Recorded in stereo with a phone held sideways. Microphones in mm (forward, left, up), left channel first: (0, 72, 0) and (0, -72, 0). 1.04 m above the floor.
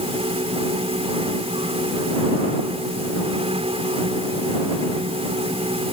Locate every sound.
0.0 s a fan: 45° right (ahead or behind)